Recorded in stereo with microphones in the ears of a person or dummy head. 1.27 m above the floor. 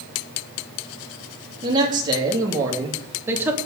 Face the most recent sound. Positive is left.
turn(degrees=-15)  # may be behind; listen again after turning